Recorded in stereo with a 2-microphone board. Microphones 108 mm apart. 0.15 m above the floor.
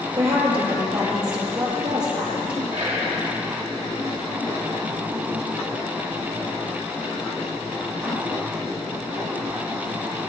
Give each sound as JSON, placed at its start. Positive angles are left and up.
{"t": 0.2, "sound": "a woman speaking", "side_deg": -55, "distance_m": 3.5}
{"t": 2.7, "sound": "whispering", "side_deg": -60, "distance_m": 2.5}